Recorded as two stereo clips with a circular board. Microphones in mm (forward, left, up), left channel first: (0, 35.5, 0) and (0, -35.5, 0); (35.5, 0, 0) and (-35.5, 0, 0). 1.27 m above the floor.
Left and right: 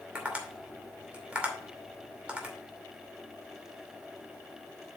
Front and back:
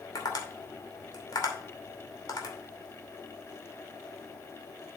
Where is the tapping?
20° right, 2.5 m.